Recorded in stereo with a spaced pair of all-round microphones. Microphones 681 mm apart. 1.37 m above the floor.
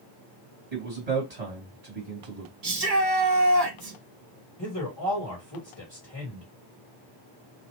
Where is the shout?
60° right (ahead or behind), 1.4 m.